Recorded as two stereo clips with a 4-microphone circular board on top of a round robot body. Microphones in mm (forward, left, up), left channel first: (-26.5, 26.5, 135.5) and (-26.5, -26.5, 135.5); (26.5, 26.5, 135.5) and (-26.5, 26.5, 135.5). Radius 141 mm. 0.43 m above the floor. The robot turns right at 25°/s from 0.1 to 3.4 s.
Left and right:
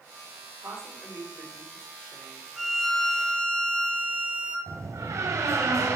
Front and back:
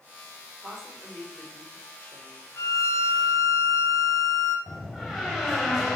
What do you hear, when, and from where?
0.6 s a woman speaking: 85° right, 3 m; by 2.5 s 40° right, 3 m
2.6 s a violin: 5° left, 1.6 m; by 4.6 s 25° left, 1.6 m
4.7 s a door slam: 80° right, 2.5 m